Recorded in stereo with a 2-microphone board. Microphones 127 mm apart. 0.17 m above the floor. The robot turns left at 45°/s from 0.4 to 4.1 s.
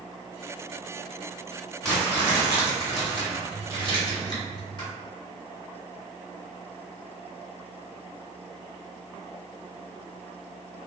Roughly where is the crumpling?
Behind.